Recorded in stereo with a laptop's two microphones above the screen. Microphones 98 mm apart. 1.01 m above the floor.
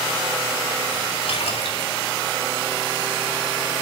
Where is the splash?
80° left, 1.9 m.